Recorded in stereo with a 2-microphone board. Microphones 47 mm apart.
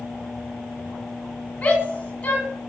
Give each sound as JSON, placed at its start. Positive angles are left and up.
{"t": 1.6, "sound": "a shout", "side_deg": 30, "distance_m": 2.0}